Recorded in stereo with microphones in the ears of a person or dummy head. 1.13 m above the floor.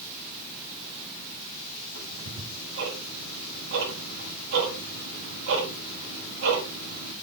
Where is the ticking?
75° right (ahead or behind), 8 m.